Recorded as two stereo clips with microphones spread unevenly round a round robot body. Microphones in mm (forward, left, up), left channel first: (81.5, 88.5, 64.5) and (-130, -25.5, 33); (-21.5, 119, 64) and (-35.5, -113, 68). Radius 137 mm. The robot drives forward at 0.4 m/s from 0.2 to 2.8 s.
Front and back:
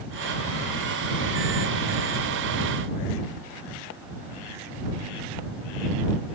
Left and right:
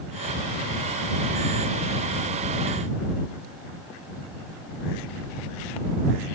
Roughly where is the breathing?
No breathing in this recording.